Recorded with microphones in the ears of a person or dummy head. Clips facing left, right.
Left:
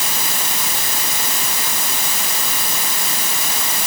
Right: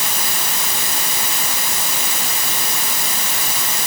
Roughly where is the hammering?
I don't hear hammering.